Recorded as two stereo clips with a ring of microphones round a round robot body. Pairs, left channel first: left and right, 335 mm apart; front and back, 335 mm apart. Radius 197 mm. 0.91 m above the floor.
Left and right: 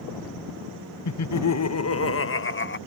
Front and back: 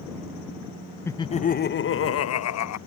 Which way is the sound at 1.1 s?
80° left.